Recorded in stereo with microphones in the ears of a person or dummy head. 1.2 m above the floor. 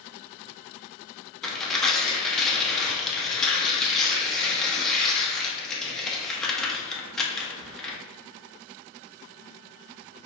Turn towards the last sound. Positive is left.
turn(degrees=0)  # may be behind; listen again after turning